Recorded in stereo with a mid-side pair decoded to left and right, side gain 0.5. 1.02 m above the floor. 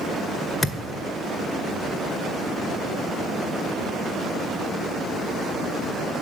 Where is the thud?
25° left, 1.6 m.